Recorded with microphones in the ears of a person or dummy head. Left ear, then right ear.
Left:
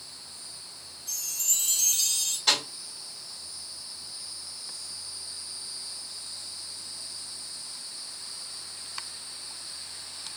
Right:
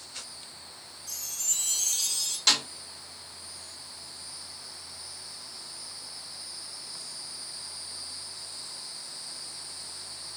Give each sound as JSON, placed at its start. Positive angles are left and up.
{"t": 1.1, "sound": "a chime", "side_deg": 0, "distance_m": 0.7}
{"t": 2.5, "sound": "a snare drum", "side_deg": -75, "distance_m": 1.9}